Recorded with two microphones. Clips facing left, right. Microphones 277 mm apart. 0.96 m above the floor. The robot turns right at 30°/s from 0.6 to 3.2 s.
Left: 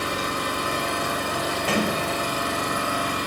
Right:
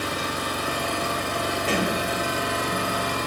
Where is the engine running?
150° left, 1.2 m; by 3.3 s 130° right, 1.2 m.